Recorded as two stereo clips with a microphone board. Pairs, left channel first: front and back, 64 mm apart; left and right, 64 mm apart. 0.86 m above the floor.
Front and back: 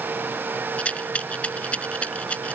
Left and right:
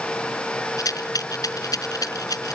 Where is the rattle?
70° left.